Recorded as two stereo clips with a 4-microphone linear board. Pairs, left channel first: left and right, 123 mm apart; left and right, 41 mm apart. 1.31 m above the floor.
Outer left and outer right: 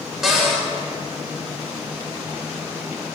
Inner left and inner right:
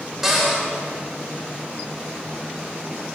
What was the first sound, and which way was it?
A cupboard door, 5° right (ahead or behind).